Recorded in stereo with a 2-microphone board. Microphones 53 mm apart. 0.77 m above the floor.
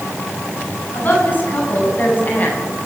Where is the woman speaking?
40° left (ahead or behind), 8.5 m.